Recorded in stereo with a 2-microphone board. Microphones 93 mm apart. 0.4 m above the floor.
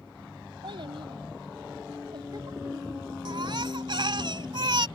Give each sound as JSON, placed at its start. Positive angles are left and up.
{"t": 0.6, "sound": "a child speaking", "side_deg": -65}
{"t": 3.2, "sound": "a baby crying", "side_deg": -55}